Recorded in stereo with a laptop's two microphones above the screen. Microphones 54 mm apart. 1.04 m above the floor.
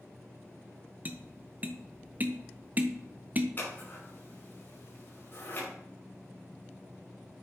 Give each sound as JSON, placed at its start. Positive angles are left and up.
{"t": 1.1, "sound": "tapping", "side_deg": -30, "distance_m": 0.6}
{"t": 3.6, "sound": "scissors", "side_deg": 40, "distance_m": 5.0}